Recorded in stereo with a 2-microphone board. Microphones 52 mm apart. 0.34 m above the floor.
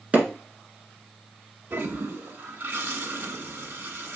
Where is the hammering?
30° right (ahead or behind), 1.5 m.